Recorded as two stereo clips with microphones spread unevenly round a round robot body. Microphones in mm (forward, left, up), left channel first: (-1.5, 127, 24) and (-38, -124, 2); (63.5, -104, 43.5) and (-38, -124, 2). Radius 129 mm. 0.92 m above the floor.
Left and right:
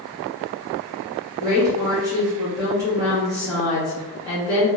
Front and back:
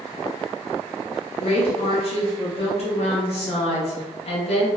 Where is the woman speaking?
25° right, 1.1 m.